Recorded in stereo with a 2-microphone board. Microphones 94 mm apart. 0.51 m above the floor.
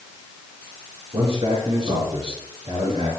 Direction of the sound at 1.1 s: 45° right (ahead or behind).